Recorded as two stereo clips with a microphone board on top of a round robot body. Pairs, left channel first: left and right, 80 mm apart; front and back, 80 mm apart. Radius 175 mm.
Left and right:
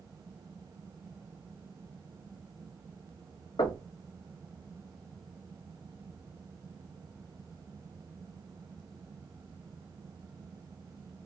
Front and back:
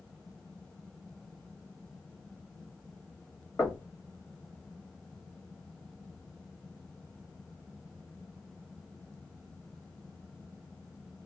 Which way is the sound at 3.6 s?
75° left.